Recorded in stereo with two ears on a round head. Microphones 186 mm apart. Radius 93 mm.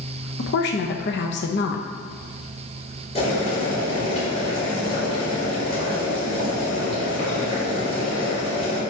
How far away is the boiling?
About 3.5 m.